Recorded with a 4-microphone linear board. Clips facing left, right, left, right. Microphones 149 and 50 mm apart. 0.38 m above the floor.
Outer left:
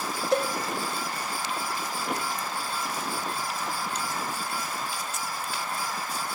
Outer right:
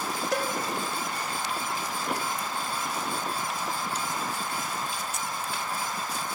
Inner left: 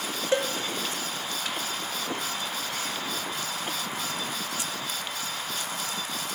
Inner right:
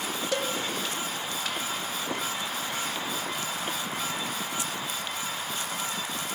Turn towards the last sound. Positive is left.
turn(degrees=30)  # may be behind; listen again after turning